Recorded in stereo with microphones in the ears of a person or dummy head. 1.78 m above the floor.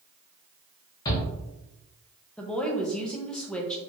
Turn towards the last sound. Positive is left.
turn(degrees=5)  # may be behind; listen again after turning